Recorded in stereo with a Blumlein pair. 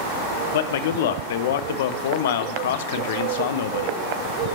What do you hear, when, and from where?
0.5 s a man speaking: 55° left, 0.6 m